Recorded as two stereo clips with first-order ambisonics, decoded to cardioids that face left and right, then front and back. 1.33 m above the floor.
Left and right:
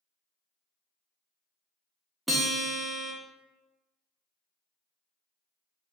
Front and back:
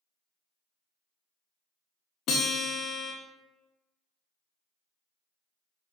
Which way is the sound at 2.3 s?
10° right.